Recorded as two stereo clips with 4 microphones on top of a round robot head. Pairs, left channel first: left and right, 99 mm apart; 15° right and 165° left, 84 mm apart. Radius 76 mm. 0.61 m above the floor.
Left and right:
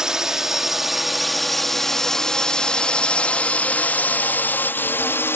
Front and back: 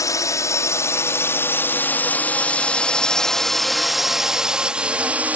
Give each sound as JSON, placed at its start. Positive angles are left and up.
{"t": 0.0, "sound": "a drone", "azimuth_deg": -10}